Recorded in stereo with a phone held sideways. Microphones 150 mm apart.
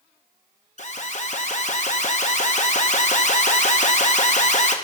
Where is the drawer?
I don't hear a drawer.